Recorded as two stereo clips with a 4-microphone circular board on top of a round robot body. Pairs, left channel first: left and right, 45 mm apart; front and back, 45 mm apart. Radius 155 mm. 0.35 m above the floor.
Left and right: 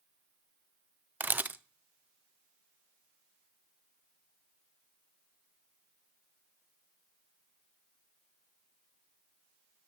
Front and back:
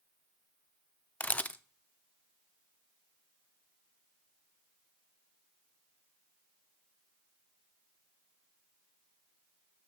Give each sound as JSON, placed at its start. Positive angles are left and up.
{"t": 1.2, "sound": "a camera shutter", "azimuth_deg": -50, "distance_m": 0.7}